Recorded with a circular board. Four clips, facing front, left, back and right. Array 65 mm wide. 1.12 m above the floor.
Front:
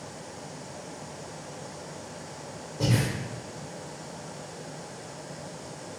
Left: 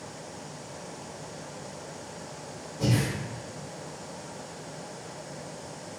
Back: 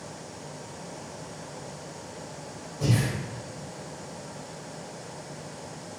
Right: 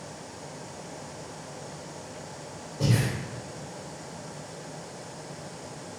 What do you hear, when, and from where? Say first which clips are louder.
2.8 s breathing: even, even; 20° right, 1.3 m